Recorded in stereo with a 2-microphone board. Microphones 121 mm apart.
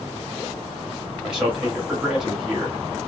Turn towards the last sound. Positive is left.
turn(degrees=-5)  # may be behind; listen again after turning